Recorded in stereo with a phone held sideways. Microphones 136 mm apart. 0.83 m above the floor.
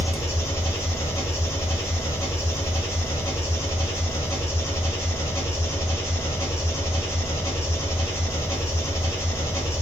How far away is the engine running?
About 1.0 m.